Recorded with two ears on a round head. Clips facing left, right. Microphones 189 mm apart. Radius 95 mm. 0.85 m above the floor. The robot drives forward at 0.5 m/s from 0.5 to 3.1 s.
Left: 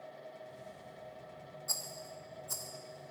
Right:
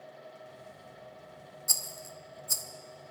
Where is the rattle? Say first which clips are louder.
Right 1 dB; 40° right (ahead or behind), 0.9 m; by 2.6 s 30° right (ahead or behind), 1.3 m.